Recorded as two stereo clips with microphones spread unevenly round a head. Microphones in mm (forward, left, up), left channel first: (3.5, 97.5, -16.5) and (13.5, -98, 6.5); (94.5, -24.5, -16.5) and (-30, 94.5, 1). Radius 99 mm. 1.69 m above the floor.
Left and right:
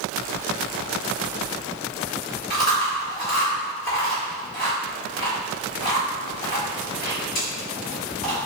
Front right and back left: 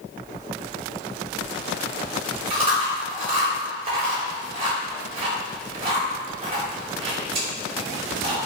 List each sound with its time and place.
2.5 s chewing: 120° left, 1.5 m